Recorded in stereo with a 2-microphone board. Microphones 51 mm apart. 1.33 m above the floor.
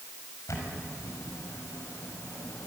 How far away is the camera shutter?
About 5.5 m.